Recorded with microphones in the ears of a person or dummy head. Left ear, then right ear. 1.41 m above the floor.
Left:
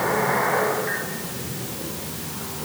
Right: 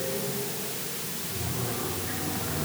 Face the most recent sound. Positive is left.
No sound to turn to.